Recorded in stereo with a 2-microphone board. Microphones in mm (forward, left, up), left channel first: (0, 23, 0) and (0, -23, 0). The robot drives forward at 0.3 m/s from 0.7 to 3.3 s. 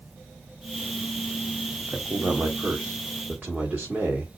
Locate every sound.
1.9 s a man speaking: 50° right (ahead or behind), 1.4 m; by 4.4 s 45° right (ahead or behind), 1.6 m